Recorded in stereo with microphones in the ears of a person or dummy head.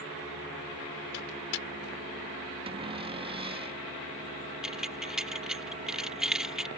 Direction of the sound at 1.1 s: 65° left (ahead or behind).